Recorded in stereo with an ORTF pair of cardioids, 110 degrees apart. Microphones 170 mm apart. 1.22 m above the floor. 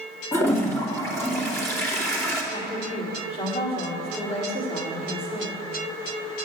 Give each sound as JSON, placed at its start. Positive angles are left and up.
{"t": 0.3, "sound": "a toilet flushing", "azimuth_deg": 15, "distance_m": 2.5}
{"t": 2.5, "sound": "a woman speaking", "azimuth_deg": 35, "distance_m": 3.5}